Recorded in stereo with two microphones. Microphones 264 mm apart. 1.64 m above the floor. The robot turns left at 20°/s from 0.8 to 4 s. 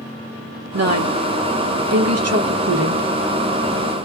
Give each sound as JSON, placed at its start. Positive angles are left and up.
{"t": 0.7, "sound": "a woman speaking", "side_deg": -75, "distance_m": 1.5}